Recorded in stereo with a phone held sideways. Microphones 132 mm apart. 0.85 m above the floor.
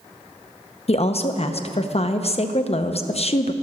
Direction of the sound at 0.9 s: 50° left (ahead or behind).